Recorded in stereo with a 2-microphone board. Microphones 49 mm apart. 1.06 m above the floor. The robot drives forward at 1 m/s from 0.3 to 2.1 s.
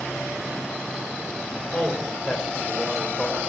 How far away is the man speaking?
About 3 m.